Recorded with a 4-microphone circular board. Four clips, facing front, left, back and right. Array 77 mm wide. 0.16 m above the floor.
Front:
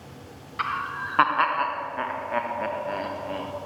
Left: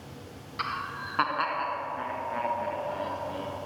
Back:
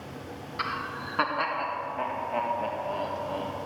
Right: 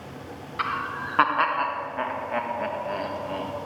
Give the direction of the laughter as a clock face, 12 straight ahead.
2 o'clock.